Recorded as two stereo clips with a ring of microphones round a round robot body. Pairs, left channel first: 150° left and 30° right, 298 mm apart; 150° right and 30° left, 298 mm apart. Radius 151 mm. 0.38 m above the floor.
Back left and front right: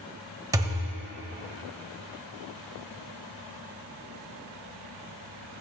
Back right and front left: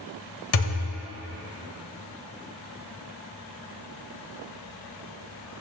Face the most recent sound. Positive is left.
turn(degrees=-110)